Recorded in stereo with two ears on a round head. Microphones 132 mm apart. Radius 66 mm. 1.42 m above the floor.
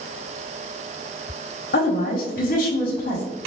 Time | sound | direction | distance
1.7 | a woman speaking | 65° left (ahead or behind) | 0.9 m